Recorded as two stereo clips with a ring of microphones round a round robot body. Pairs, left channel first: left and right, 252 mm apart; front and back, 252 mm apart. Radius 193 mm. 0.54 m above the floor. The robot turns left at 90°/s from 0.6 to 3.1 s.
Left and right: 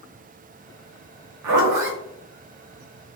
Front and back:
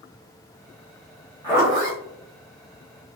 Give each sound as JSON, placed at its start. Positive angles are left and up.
{"t": 1.4, "sound": "a zipper", "azimuth_deg": -75, "distance_m": 1.1}